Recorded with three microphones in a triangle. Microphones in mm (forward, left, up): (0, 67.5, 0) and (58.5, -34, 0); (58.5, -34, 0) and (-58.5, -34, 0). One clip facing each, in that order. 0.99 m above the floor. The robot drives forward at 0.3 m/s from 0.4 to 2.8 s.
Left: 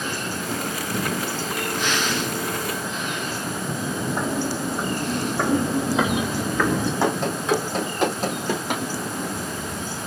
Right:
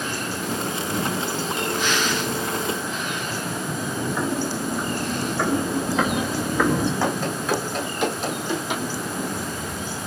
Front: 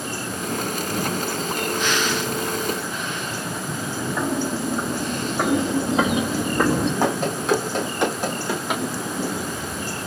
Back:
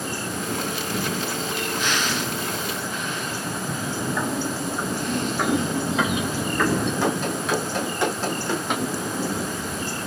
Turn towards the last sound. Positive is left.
turn(degrees=90)